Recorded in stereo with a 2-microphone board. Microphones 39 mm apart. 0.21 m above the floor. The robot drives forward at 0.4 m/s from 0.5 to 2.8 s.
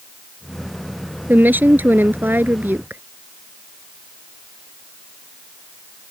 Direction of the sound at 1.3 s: 50° right (ahead or behind).